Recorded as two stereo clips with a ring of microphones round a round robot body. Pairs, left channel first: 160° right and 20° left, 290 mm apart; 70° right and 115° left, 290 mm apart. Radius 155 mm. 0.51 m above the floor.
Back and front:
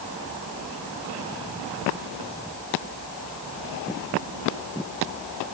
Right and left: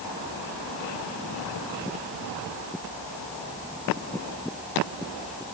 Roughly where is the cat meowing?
I don't hear a cat meowing.